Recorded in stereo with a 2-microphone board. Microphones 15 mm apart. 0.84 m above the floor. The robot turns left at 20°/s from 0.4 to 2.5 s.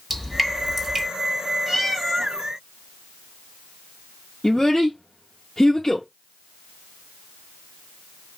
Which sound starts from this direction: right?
Dripping, at 0.1 s.